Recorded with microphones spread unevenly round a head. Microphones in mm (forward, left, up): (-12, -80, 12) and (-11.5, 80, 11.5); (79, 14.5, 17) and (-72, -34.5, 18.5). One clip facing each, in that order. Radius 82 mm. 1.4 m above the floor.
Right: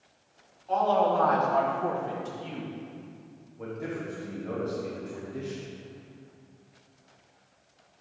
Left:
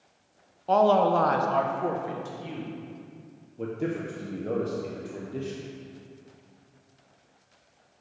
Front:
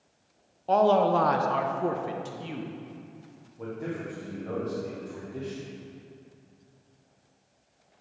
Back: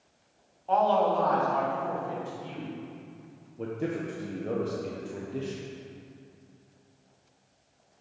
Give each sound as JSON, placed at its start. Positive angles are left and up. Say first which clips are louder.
{"t": 0.7, "sound": "a man speaking", "louder": "left 4 dB, front 3 dB", "azimuth_deg": 65, "distance_m": 0.8}
{"t": 3.6, "sound": "a man speaking", "louder": "left 5 dB, back 3 dB", "azimuth_deg": 140, "distance_m": 1.0}